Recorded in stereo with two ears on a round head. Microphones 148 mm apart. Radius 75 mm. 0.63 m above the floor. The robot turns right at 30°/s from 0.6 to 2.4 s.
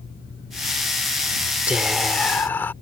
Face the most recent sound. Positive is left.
turn(degrees=10)  # may be behind; listen again after turning